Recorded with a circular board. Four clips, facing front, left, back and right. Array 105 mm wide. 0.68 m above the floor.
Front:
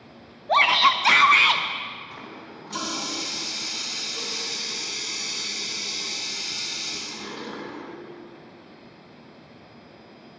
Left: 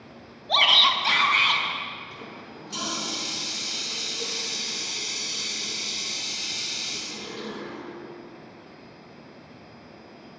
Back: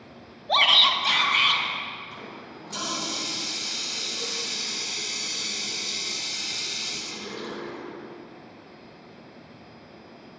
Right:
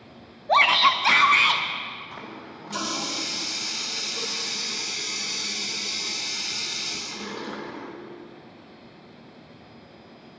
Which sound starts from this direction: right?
A running tap, at 2.1 s.